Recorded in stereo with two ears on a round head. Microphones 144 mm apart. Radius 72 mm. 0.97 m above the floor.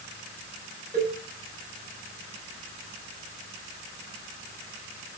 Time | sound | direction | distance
0.9 | a cowbell | 40° right (ahead or behind) | 4.5 m